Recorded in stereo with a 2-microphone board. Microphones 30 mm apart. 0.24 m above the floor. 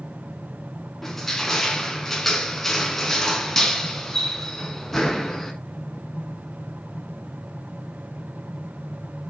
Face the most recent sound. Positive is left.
turn(degrees=5)  # may be behind; listen again after turning